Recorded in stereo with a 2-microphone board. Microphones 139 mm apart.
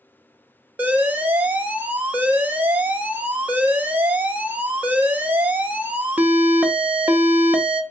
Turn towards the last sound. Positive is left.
turn(degrees=-10)  # may be behind; listen again after turning